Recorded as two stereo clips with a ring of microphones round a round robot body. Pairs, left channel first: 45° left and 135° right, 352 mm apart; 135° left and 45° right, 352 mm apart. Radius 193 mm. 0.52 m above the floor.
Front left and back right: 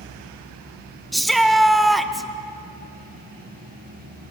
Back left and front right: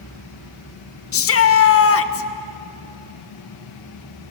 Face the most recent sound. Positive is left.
turn(degrees=135)